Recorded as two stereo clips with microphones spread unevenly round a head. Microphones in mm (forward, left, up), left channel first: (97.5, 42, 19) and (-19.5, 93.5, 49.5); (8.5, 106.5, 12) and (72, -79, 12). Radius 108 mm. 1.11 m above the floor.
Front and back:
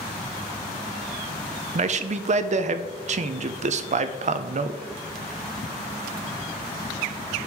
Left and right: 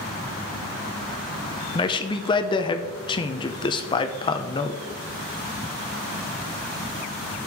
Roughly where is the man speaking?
Behind.